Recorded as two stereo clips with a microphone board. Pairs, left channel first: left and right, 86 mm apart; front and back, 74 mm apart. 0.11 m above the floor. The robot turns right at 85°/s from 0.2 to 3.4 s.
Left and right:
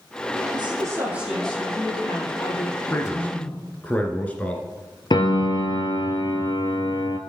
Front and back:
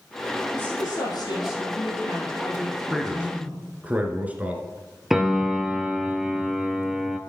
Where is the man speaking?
100° left, 1.4 m; by 4.6 s 140° left, 1.4 m.